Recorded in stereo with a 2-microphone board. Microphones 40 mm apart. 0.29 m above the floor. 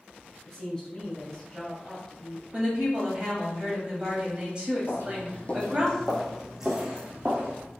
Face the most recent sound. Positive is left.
turn(degrees=-30)  # may be behind; listen again after turning